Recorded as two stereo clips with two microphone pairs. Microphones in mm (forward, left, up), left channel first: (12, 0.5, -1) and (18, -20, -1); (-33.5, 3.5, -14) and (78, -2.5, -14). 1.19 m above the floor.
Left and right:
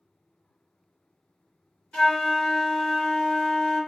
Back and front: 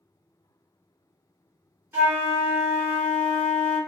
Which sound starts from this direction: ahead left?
A flute, at 1.9 s.